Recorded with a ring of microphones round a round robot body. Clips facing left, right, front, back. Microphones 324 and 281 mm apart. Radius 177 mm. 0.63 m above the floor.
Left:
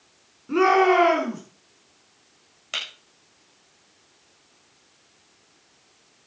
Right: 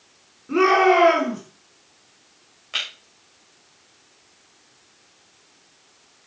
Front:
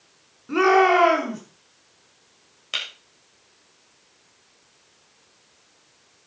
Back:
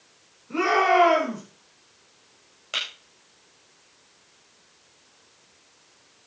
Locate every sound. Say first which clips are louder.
0.5 s a shout: right 1 dB, front 6 dB; 5° left, 7.5 m
2.7 s breaking glass: even, back 1 dB; 50° left, 8.5 m